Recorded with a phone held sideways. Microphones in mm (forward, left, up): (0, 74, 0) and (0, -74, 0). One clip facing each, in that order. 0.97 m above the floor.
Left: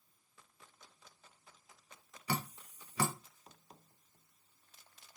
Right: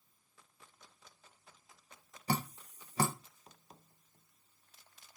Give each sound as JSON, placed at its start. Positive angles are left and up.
{"t": 2.3, "sound": "dripping", "side_deg": -40, "distance_m": 0.6}